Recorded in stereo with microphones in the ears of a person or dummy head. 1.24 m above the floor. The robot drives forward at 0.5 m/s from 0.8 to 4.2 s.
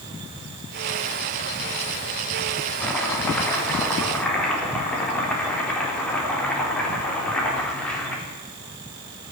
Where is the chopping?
5° left (ahead or behind), 3 m.